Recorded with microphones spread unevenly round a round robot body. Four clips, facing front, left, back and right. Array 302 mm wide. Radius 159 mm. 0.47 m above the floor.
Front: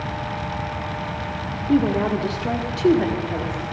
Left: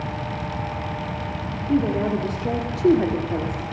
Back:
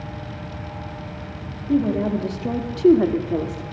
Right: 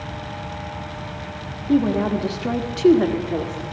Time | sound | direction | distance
1.7 | a woman speaking | 15° right | 1.6 m